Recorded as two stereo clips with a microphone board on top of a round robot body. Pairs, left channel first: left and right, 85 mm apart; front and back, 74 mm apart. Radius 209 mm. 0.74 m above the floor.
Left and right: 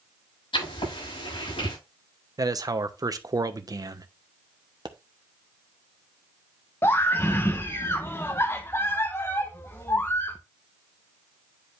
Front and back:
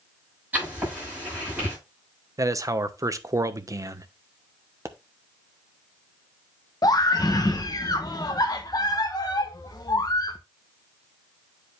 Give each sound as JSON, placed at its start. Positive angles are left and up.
{"t": 0.5, "sound": "writing", "azimuth_deg": 110, "distance_m": 7.5}
{"t": 2.4, "sound": "a man speaking", "azimuth_deg": -135, "distance_m": 1.1}
{"t": 4.8, "sound": "a pop", "azimuth_deg": -125, "distance_m": 1.1}
{"t": 6.8, "sound": "a scream", "azimuth_deg": 30, "distance_m": 1.1}